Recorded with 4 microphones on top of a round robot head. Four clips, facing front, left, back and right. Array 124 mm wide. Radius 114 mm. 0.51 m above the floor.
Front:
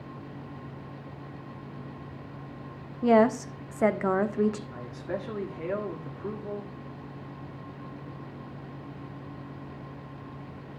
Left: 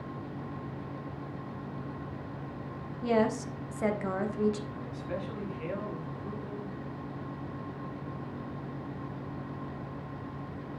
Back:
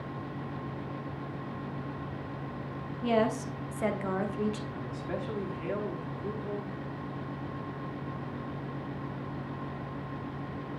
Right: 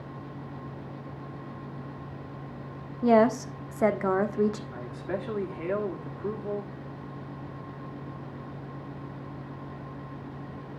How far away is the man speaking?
About 2 m.